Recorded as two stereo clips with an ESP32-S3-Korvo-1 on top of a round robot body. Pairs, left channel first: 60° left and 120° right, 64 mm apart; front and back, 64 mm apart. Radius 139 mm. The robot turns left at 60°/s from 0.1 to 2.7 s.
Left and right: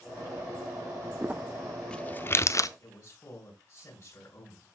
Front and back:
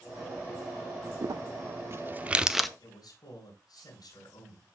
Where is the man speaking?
20° left, 5.5 m.